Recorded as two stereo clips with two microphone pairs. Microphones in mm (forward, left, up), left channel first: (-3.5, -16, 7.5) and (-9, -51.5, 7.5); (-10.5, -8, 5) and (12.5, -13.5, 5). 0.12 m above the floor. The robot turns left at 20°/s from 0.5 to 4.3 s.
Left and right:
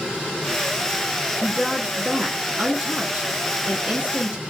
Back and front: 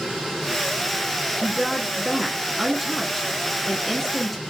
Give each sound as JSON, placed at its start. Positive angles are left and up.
{"t": 1.4, "sound": "a woman speaking", "azimuth_deg": -55, "distance_m": 1.2}